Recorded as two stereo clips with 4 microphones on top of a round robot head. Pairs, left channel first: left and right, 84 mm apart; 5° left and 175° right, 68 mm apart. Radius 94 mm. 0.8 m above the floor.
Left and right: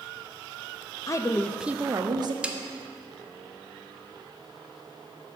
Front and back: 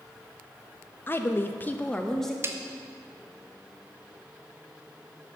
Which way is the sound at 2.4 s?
160° right.